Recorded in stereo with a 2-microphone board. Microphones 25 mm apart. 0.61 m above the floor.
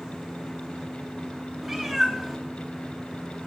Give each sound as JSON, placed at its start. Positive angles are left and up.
{"t": 1.6, "sound": "a cat meowing", "side_deg": -10, "distance_m": 2.0}